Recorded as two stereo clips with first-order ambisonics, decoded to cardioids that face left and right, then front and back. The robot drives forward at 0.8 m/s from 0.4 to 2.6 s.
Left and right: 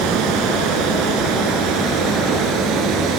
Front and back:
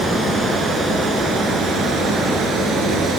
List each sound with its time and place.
0.0 s running water: 105° right, 4.5 m; by 3.2 s 125° right, 5 m